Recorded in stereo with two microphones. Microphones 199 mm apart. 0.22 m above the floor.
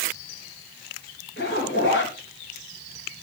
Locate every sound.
1.4 s a zipper: 70° left (ahead or behind), 4 m